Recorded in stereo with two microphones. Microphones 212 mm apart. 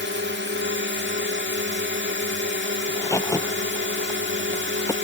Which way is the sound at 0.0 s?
60° right (ahead or behind).